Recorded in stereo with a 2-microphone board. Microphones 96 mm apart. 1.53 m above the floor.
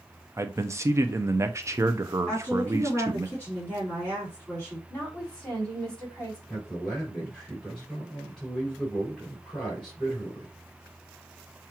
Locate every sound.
0.4 s a man speaking: 30° right (ahead or behind), 0.6 m
2.3 s a woman speaking: 15° left (ahead or behind), 3.5 m
4.9 s a woman speaking: 10° left (ahead or behind), 4 m
6.5 s a man speaking: 5° left (ahead or behind), 4 m